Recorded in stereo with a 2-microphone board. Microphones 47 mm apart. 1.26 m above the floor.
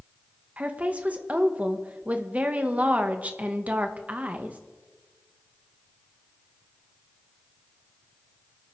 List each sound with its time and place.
0.6 s a woman speaking: 35° right (ahead or behind), 1.3 m